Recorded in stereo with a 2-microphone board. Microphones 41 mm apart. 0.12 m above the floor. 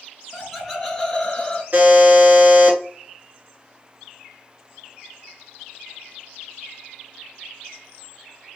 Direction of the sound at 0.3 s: 10° right (ahead or behind).